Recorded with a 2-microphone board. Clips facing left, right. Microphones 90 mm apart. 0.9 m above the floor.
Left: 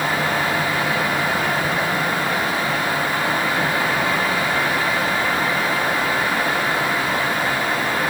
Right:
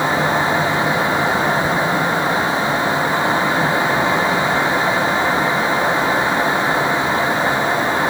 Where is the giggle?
I don't hear a giggle.